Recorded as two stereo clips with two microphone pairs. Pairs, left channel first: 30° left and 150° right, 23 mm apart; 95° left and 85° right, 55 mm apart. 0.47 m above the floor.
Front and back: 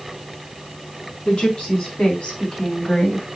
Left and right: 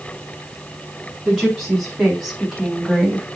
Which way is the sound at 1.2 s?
Straight ahead.